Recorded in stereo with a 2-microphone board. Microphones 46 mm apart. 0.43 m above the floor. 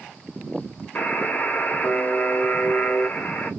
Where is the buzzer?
40° left (ahead or behind), 0.7 m.